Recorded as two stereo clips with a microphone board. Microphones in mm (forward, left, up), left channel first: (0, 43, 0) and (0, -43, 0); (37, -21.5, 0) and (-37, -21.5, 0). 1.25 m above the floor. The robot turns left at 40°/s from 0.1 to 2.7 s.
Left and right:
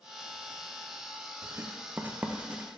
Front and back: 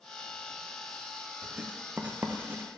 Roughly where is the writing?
Right.